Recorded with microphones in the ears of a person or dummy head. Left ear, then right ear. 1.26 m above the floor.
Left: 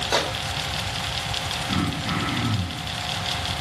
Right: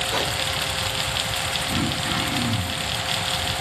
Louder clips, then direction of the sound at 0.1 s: Left 5 dB; 65° left (ahead or behind).